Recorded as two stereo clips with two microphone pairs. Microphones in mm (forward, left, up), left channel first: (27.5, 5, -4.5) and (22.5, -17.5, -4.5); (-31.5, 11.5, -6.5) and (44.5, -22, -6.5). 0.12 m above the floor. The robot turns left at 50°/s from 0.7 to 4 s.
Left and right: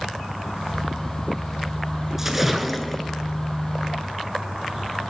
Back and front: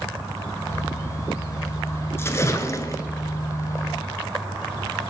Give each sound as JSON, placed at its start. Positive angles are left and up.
{"t": 2.2, "sound": "a splash", "azimuth_deg": -165, "distance_m": 0.8}